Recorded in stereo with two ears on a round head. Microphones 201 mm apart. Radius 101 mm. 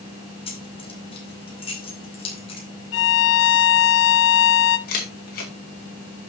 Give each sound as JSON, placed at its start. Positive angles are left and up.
{"t": 0.5, "sound": "keys jangling", "side_deg": 25, "distance_m": 5.0}
{"t": 2.9, "sound": "a violin", "side_deg": 60, "distance_m": 1.0}
{"t": 4.9, "sound": "a camera shutter", "side_deg": 45, "distance_m": 5.0}